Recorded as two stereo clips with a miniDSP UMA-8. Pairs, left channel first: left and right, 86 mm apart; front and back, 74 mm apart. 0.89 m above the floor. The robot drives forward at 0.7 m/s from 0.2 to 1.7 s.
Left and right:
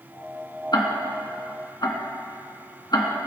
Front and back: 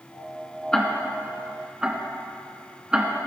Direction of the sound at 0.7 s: 80° left.